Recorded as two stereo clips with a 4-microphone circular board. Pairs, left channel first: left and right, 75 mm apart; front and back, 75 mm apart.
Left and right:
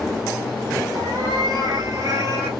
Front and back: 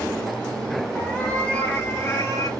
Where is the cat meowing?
80° right, 3.5 m; by 2.5 s 40° right, 1.8 m.